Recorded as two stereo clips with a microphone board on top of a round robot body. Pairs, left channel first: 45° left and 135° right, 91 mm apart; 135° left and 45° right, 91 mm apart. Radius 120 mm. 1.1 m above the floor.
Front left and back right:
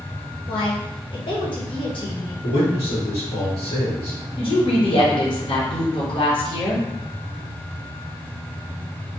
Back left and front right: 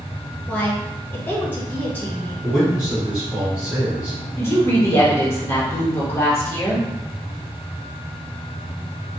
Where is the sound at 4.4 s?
70° left, 1.1 m.